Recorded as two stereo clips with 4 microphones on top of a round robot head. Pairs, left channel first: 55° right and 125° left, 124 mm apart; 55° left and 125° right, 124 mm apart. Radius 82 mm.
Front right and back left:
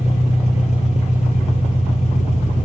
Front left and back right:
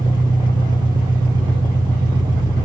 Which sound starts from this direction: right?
An engine running, at 0.0 s.